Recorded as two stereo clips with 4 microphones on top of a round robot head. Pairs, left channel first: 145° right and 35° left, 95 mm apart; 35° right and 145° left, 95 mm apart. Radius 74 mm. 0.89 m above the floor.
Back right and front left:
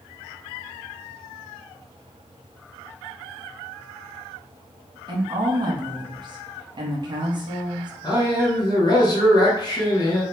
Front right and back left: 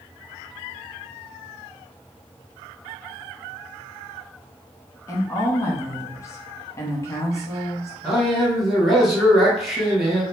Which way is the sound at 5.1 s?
15° left.